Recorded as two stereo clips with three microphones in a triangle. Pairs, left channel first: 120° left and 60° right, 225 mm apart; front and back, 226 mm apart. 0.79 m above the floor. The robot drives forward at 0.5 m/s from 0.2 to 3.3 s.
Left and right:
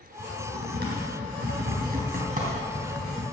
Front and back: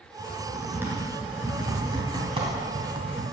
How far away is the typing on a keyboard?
About 3 m.